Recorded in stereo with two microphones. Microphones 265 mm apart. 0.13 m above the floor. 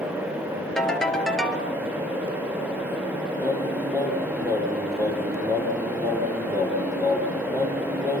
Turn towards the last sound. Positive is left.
turn(degrees=-10)  # may be behind; listen again after turning